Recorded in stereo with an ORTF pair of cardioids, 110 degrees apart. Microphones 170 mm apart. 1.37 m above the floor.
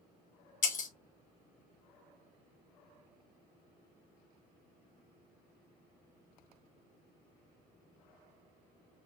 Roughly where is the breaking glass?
Ahead left.